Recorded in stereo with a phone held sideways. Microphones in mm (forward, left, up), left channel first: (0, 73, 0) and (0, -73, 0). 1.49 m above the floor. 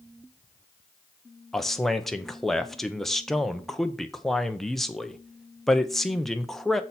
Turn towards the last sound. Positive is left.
turn(degrees=0)  # may be behind; listen again after turning